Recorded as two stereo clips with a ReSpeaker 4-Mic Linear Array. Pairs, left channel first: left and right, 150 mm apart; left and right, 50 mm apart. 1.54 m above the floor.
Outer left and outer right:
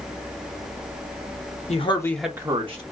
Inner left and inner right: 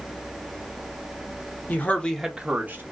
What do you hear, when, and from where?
1.7 s a man speaking: 45° left (ahead or behind), 0.9 m; by 2.8 s 45° right (ahead or behind), 1.1 m